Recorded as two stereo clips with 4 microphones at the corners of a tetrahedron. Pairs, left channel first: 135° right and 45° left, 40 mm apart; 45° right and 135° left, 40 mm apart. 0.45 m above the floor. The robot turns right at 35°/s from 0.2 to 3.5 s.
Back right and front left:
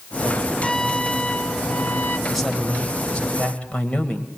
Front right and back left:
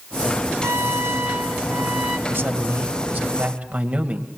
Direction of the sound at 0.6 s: 145° left.